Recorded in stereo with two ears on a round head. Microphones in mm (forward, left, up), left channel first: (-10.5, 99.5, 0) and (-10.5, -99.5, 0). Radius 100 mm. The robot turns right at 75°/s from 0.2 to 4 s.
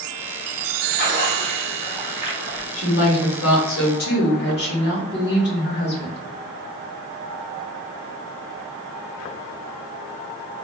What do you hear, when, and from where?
0.9 s a splash: 90° left, 0.9 m; by 2.6 s 140° right, 0.9 m
2.7 s a woman speaking: 30° left, 1.4 m; by 6.2 s 125° left, 1.4 m